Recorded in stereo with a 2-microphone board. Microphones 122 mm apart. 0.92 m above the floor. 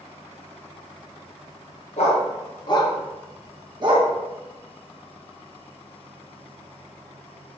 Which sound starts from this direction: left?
A dog barking, at 2.0 s.